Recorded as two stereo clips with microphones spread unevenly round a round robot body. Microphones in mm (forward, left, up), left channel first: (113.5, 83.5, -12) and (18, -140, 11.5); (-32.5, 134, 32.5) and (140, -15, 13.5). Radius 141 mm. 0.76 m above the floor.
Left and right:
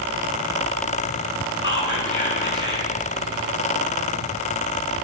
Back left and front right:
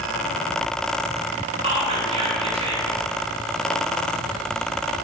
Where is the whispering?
25° left, 9.5 m.